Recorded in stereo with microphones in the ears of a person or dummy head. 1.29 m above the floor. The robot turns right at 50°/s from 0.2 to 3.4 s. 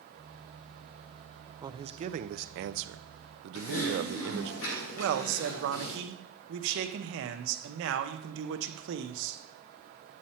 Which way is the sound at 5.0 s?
70° right (ahead or behind).